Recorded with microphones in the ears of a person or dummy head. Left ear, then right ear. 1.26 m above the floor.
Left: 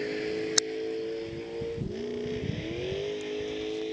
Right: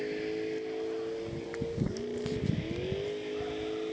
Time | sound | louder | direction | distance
0.0 | a vehicle | left 3 dB | 15° left (ahead or behind) | ?